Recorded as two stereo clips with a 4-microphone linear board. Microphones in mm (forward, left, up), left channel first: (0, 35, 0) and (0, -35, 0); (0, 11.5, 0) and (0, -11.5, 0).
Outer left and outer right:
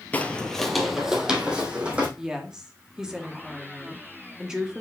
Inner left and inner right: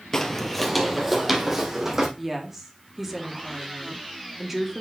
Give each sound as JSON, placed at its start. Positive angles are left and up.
{"t": 0.1, "sound": "footsteps", "side_deg": 25, "distance_m": 1.1}
{"t": 2.2, "sound": "a woman speaking", "side_deg": -10, "distance_m": 1.9}